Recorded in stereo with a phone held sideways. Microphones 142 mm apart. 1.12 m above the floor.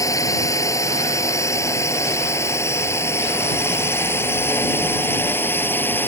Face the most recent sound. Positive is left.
turn(degrees=15)  # may be behind; listen again after turning